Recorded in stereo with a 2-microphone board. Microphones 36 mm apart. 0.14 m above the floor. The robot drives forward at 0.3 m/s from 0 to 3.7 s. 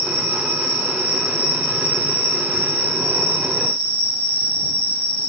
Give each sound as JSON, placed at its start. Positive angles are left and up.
{"t": 0.0, "sound": "an insect", "side_deg": -45, "distance_m": 1.3}